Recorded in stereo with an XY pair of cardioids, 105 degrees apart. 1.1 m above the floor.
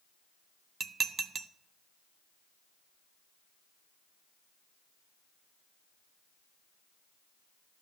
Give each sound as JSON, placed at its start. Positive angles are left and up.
{"t": 0.8, "sound": "dishes clattering", "azimuth_deg": -45, "distance_m": 0.6}